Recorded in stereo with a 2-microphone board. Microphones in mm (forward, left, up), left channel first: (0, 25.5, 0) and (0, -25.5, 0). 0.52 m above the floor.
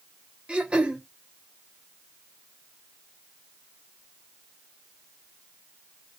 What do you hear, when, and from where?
0.5 s throat clearing: 20° right (ahead or behind), 0.8 m